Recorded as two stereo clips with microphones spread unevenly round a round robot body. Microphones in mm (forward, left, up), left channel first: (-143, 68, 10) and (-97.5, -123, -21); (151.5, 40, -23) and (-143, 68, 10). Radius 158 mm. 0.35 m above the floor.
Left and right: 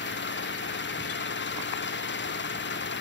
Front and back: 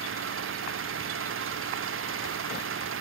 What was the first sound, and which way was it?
An engine running, 125° left.